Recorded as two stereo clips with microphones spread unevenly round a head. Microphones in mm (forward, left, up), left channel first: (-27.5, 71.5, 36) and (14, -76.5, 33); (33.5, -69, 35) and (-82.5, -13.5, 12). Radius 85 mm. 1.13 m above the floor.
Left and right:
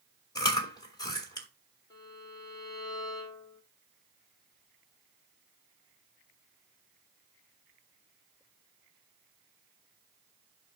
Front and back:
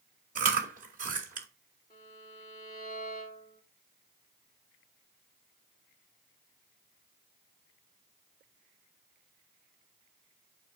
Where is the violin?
40° left, 3 m.